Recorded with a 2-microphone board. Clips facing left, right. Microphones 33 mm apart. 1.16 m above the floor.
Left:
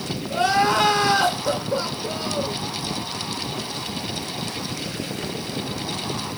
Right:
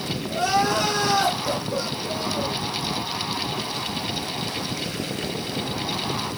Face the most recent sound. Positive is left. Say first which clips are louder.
# left 3 dB
turn(degrees=55)  # may be behind; listen again after turning